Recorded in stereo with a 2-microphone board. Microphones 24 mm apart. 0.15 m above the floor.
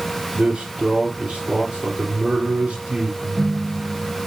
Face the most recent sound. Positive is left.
turn(degrees=-50)  # may be behind; listen again after turning